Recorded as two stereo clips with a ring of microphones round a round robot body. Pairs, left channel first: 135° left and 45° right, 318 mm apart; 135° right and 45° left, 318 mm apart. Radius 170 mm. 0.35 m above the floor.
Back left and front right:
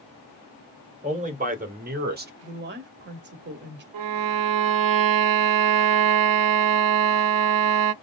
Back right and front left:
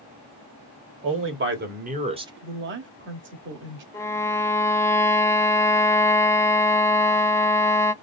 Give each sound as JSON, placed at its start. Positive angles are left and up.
{"t": 1.0, "sound": "a man speaking", "azimuth_deg": 15, "distance_m": 2.5}
{"t": 2.4, "sound": "a woman speaking", "azimuth_deg": 0, "distance_m": 1.7}
{"t": 3.9, "sound": "a violin", "azimuth_deg": -55, "distance_m": 0.7}